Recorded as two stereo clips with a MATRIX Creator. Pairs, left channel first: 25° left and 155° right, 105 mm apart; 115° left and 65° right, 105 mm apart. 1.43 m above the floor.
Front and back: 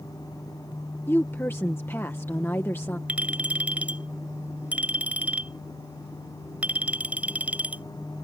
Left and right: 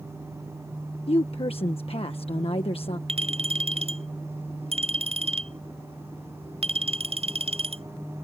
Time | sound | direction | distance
1.1 | a woman speaking | 90° left | ?
3.1 | a clink | 80° right | ?